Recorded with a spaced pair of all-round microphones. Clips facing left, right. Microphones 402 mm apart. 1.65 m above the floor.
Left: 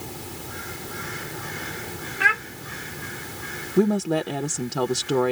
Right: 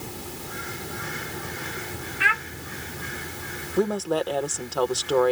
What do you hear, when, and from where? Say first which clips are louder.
2.2 s a child speaking: left 2 dB; 60° left (ahead or behind)
3.8 s a woman speaking: left 3 dB; 40° left (ahead or behind)